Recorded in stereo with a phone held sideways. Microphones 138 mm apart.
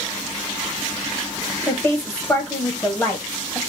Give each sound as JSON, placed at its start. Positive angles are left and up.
{"t": 1.7, "sound": "a woman speaking", "side_deg": 10, "distance_m": 1.0}